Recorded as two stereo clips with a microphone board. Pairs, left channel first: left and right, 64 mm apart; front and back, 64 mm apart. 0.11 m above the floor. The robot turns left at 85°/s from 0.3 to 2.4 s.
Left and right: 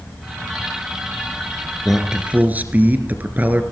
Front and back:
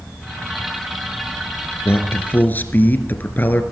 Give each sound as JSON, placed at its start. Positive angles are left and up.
{"t": 1.9, "sound": "a man speaking", "azimuth_deg": 5, "distance_m": 1.8}